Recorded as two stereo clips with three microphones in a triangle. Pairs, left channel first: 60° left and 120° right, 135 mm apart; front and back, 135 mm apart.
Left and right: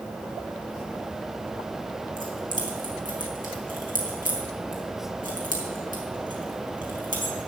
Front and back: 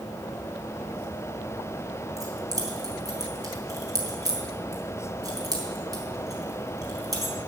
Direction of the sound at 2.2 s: 115° right.